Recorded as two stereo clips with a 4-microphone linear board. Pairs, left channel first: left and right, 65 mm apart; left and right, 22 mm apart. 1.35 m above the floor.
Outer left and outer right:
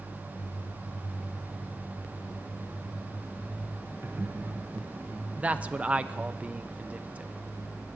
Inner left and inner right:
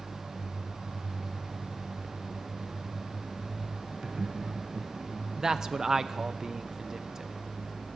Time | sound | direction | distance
4.0 | laughter | 40° right (ahead or behind) | 1.2 m
5.4 | a man speaking | 25° right (ahead or behind) | 0.7 m